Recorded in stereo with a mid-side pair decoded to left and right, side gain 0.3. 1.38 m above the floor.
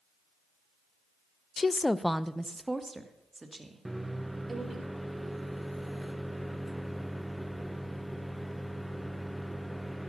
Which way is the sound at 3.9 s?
10° right.